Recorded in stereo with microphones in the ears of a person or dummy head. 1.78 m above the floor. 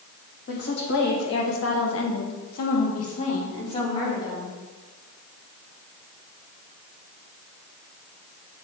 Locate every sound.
0.5 s a woman speaking: 45° left (ahead or behind), 3 m; by 4.6 s 35° left (ahead or behind), 4 m